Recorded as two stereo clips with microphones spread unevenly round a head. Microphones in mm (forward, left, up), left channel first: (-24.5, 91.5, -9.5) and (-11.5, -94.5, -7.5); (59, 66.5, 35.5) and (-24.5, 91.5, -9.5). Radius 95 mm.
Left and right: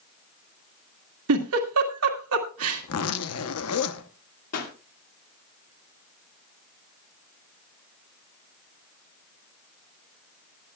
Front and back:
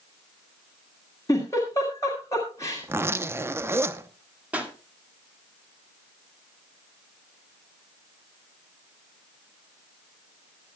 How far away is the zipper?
About 0.9 m.